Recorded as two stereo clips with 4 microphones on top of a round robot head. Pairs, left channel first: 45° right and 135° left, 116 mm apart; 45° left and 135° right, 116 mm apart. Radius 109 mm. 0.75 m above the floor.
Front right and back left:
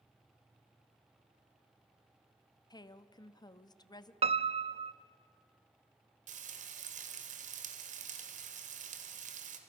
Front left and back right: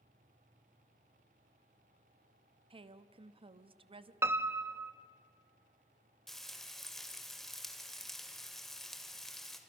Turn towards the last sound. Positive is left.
turn(degrees=135)